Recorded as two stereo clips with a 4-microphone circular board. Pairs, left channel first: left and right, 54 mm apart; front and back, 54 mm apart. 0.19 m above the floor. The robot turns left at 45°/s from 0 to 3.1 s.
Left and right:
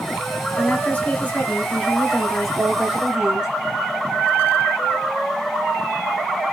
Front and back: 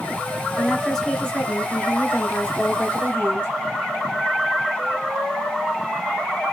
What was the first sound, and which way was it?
A woman speaking, 90° left.